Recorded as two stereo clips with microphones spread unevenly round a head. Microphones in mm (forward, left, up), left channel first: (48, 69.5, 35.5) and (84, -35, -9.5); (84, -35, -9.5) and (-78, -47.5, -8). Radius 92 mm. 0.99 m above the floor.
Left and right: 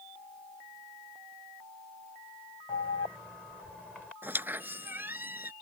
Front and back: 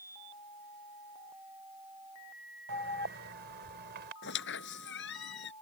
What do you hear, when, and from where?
2.7 s an alarm: 160° right
4.2 s a squeak: 10° left